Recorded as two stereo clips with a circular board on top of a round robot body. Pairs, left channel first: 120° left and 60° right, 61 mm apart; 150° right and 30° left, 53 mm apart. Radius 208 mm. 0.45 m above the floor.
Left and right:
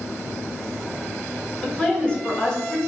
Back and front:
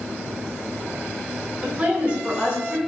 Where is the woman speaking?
70° left, 1.1 m.